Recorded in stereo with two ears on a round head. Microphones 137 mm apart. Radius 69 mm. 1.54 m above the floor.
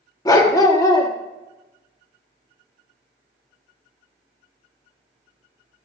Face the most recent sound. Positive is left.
turn(degrees=25)  # may be behind; listen again after turning